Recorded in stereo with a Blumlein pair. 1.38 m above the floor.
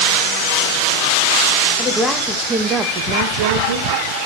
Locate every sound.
1.8 s a woman speaking: 10° left, 1.8 m; by 4.1 s 70° right, 1.5 m